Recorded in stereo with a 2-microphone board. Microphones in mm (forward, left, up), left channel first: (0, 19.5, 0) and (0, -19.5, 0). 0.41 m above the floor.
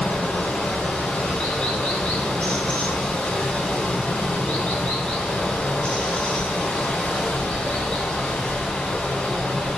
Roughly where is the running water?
Left.